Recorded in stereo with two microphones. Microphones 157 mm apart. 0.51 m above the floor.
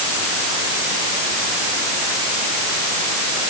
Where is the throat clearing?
I don't hear throat clearing.